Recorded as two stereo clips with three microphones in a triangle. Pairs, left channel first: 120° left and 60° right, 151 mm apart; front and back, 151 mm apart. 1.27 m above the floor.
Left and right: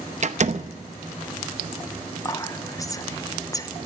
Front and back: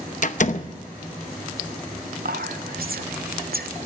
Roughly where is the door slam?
Ahead right.